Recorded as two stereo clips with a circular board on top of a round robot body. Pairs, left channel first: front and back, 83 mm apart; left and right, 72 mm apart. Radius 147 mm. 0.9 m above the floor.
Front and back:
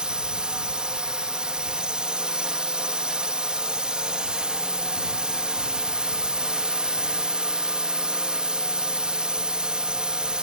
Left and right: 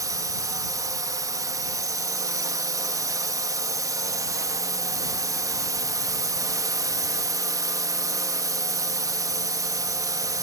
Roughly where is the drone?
Right.